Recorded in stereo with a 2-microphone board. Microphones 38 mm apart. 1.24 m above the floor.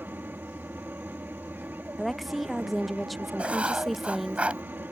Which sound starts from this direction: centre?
A woman speaking, at 2.0 s.